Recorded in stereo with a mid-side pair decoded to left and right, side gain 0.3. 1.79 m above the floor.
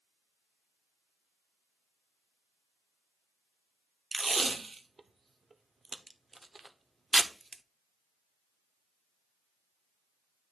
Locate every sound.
4.1 s tape being pulled: 40° right, 0.9 m